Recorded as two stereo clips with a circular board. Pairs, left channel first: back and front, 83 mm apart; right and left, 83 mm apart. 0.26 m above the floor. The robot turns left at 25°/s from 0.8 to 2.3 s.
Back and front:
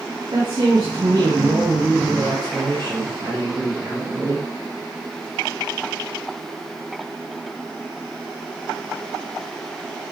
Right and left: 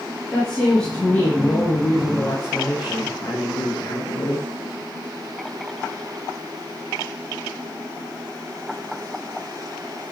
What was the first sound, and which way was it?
A woman speaking, 10° right.